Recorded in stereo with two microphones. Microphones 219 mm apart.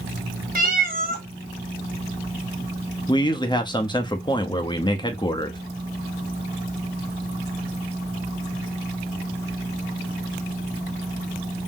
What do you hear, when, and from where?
0.6 s a cat meowing: 40° right (ahead or behind), 1.2 m
3.1 s a man speaking: 20° left (ahead or behind), 0.8 m